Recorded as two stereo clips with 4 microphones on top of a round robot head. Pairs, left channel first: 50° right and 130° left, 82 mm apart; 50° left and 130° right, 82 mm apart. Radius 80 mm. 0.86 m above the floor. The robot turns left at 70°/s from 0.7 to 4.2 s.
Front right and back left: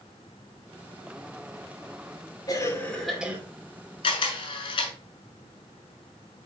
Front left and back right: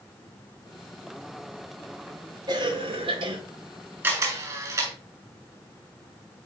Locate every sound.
2.5 s a cough: 95° right, 2 m; by 3.4 s 155° right, 2 m
4.0 s a camera shutter: 65° right, 1.8 m; by 4.9 s 80° right, 1.8 m